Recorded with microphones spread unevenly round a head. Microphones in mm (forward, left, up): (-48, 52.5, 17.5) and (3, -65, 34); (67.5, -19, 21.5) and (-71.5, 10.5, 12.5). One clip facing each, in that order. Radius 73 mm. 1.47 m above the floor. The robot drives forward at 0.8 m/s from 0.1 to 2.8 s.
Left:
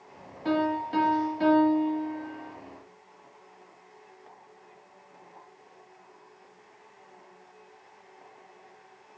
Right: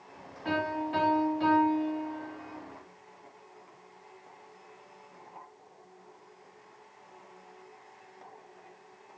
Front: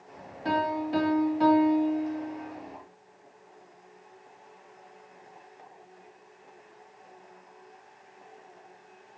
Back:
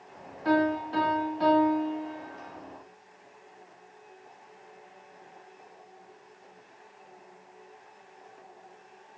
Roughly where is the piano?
Ahead left.